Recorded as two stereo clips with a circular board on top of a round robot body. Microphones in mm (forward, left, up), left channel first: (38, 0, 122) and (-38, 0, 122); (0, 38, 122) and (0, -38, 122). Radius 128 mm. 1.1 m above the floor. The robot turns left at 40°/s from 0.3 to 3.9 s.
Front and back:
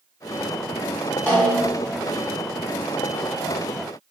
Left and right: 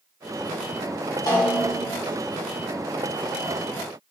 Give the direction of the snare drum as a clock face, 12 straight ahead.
10 o'clock.